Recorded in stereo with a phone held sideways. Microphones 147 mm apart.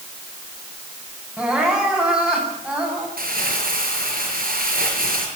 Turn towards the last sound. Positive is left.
turn(degrees=-85)